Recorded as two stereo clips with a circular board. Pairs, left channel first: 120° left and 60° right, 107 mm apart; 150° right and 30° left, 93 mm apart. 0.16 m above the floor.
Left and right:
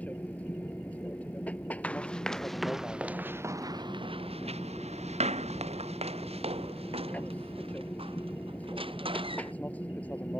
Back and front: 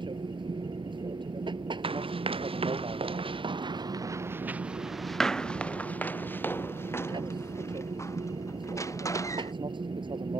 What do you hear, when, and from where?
0.0 s an aircraft: 45° left
1.8 s running footsteps: 40° left; by 9.5 s 95° right